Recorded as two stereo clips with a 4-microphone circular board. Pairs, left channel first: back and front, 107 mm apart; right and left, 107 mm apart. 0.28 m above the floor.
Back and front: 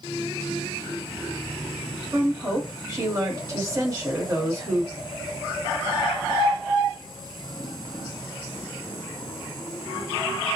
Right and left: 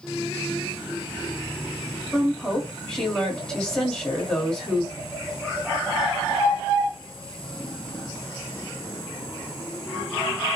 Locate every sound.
2.1 s a woman speaking: 15° right, 1.2 m